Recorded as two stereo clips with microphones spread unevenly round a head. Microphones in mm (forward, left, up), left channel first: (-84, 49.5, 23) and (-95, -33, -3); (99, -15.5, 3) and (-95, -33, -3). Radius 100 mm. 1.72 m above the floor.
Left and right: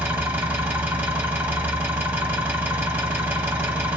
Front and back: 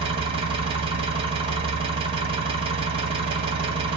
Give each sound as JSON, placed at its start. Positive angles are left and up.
{"t": 0.0, "sound": "an engine running", "azimuth_deg": -175, "distance_m": 1.1}